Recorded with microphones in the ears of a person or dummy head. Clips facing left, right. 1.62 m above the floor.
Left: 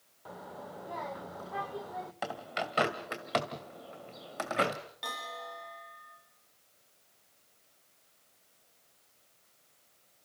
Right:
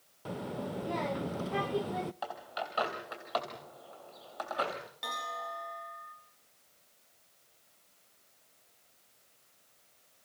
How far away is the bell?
About 6 m.